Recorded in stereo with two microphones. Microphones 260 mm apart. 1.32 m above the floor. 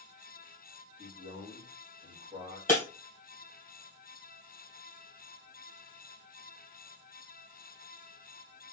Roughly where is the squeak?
No squeak in this recording.